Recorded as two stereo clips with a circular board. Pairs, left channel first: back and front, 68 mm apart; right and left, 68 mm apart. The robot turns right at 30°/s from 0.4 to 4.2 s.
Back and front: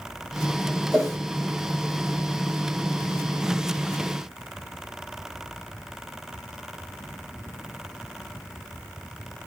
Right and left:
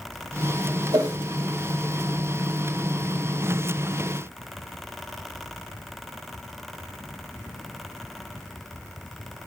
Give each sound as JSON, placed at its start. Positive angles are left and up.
{"t": 0.9, "sound": "a whoosh", "azimuth_deg": 85, "distance_m": 4.0}